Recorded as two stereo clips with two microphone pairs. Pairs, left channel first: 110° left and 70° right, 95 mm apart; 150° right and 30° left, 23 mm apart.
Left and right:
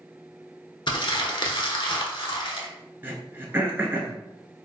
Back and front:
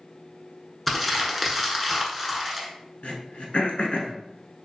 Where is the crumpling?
125° left, 0.8 m.